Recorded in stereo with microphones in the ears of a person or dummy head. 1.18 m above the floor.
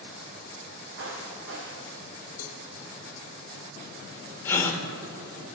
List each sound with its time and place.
1.0 s footsteps: 70° right (ahead or behind), 4 m; by 2.3 s 75° right (ahead or behind), 4.5 m
2.4 s a cowbell: 65° left (ahead or behind), 1.1 m
4.5 s a gasp: 10° left (ahead or behind), 1.5 m